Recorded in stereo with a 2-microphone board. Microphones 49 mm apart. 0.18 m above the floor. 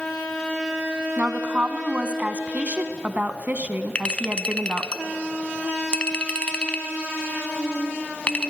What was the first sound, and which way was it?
A woman speaking, 35° right (ahead or behind).